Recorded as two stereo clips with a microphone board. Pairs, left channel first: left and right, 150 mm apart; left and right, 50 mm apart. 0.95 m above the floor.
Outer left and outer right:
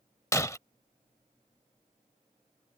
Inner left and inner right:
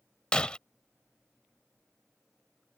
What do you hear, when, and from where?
0.3 s breaking glass: 20° left (ahead or behind)